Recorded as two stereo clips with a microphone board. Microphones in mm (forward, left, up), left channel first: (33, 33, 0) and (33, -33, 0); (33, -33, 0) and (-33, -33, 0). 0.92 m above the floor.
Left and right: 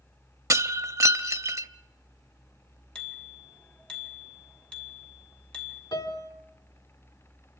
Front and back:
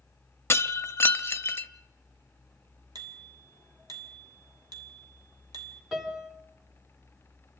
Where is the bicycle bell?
165° left, 2.5 m.